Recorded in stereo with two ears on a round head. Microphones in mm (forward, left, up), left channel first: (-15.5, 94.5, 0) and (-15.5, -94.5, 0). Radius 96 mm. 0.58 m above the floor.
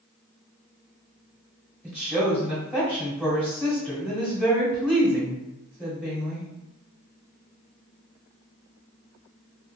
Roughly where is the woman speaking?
Centre.